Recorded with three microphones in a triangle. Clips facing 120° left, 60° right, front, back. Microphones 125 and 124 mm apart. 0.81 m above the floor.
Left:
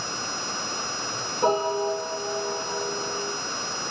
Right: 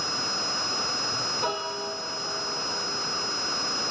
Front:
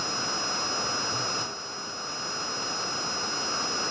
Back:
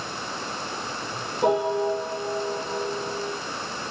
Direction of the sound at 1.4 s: 175° left.